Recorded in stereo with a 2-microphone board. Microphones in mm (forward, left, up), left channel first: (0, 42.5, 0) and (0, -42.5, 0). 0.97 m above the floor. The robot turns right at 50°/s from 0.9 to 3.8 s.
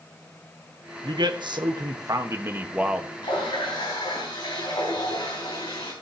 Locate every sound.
1.0 s a man speaking: 105° right, 1.2 m; by 3.1 s 5° right, 1.2 m
3.2 s a running tap: 85° left, 5 m; by 5.9 s 70° left (ahead or behind), 5 m